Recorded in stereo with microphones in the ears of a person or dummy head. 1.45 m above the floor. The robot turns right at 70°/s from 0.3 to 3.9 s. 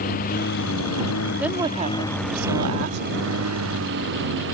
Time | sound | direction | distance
0.0 | a lawn mower | 45° left (ahead or behind) | ?
1.4 | a woman speaking | 175° right | ?